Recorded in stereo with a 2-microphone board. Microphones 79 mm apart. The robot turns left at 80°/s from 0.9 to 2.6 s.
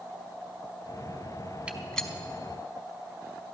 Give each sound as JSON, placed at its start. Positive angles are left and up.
{"t": 1.7, "sound": "a gunshot", "side_deg": -15, "distance_m": 0.9}